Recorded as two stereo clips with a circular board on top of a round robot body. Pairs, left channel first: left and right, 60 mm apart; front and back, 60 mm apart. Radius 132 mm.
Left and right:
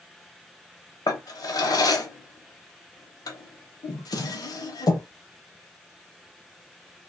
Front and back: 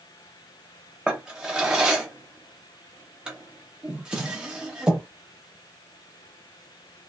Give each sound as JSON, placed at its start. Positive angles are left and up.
{"t": 1.1, "sound": "a drawer", "azimuth_deg": 105, "distance_m": 0.7}